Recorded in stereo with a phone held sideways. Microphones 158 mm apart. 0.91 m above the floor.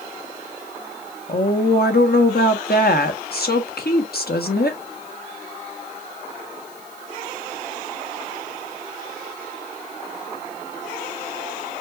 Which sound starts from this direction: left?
A woman speaking, at 1.3 s.